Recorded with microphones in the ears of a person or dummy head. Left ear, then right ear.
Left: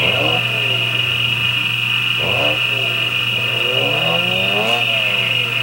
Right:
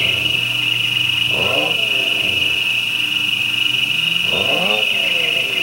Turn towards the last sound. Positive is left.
turn(degrees=-50)  # may be behind; listen again after turning